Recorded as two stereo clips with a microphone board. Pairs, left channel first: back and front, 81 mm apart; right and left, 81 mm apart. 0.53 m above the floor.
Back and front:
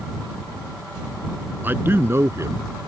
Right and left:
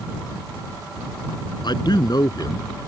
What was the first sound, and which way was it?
A man speaking, 65° right.